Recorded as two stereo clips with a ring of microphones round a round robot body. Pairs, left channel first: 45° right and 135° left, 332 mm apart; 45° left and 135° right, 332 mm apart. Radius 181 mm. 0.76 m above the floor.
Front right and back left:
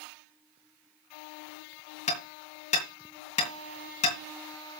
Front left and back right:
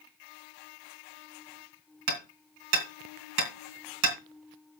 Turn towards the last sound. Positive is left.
turn(degrees=-115)